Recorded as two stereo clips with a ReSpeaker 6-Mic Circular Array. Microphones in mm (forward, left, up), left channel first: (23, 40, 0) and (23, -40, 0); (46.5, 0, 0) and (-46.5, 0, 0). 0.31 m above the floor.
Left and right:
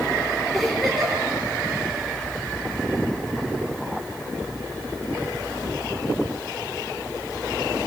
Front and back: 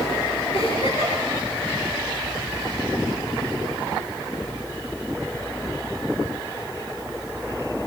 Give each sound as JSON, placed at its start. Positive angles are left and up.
{"t": 0.5, "sound": "a giggle", "azimuth_deg": 0, "distance_m": 6.0}